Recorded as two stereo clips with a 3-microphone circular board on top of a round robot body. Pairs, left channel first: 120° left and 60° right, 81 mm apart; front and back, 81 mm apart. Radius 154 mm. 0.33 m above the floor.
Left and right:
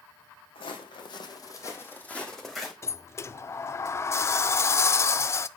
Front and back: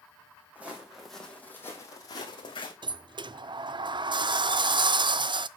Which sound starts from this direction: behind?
A sliding door, at 2.8 s.